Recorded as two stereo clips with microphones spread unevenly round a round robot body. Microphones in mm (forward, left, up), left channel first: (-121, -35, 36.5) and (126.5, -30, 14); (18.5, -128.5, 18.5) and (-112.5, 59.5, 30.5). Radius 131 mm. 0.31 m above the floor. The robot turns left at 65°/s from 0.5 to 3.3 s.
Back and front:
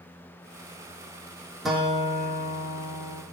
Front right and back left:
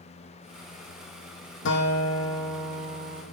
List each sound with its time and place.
1.6 s a guitar: 90° right, 3.5 m; by 3.2 s 170° left, 3.5 m